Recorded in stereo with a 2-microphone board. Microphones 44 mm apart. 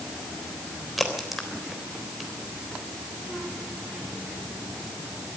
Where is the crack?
Centre (ahead or behind), 3.5 m.